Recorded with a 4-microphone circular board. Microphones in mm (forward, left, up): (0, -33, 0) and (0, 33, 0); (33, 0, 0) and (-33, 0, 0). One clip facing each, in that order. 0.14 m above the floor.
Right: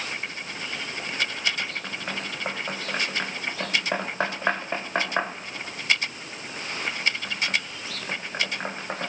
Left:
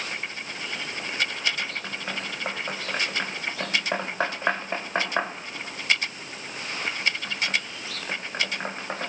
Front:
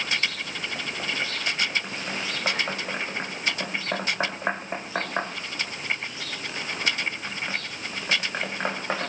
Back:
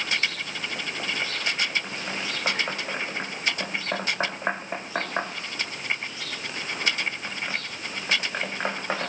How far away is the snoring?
I don't hear snoring.